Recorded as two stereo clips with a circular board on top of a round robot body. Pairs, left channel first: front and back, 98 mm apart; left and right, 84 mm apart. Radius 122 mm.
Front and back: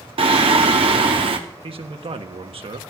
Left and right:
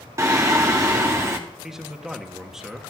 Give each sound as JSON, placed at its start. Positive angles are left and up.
{"t": 0.2, "sound": "singing", "azimuth_deg": -150, "distance_m": 0.9}
{"t": 1.6, "sound": "a man speaking", "azimuth_deg": -175, "distance_m": 1.3}